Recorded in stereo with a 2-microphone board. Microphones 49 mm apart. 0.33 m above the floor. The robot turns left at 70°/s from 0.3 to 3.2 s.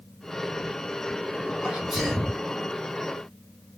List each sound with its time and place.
1.6 s a sneeze: 150° right, 2.5 m; by 2.4 s 155° left, 2.5 m